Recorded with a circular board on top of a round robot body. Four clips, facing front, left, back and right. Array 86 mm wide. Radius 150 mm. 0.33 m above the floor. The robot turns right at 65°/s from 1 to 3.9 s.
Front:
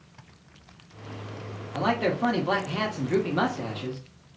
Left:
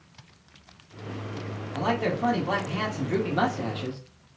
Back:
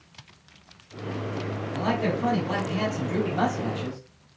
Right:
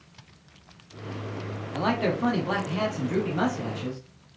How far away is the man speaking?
About 1.2 m.